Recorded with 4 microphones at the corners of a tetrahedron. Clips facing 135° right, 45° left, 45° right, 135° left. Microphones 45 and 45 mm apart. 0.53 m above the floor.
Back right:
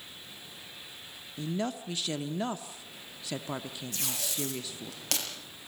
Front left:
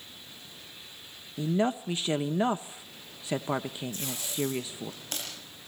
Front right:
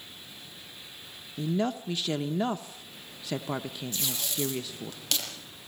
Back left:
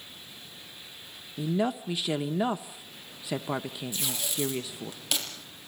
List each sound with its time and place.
1.4 s a woman speaking: 70° left, 0.7 m
3.9 s tape being pulled: 145° right, 6.5 m